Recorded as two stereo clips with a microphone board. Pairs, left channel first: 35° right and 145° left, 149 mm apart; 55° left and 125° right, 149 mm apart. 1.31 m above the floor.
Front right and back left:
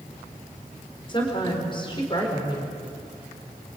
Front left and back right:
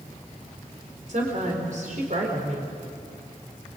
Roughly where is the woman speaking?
Right.